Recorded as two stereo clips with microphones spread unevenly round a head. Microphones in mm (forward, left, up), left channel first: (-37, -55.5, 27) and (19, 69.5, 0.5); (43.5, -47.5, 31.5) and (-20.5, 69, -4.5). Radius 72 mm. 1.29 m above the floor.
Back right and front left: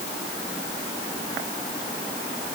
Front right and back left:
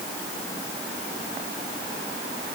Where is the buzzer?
I don't hear a buzzer.